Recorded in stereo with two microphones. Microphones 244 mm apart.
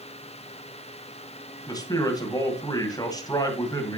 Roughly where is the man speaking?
Centre.